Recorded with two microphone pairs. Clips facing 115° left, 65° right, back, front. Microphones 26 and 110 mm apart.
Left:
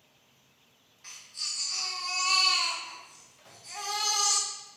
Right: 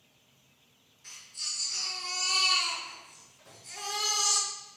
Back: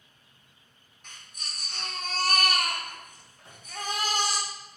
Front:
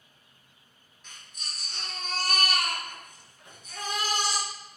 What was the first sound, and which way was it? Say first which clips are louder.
A baby crying: left 1 dB, even; 150° left.